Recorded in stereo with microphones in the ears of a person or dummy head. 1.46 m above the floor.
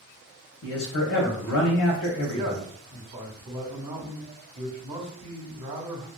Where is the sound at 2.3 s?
30° right (ahead or behind), 0.8 m.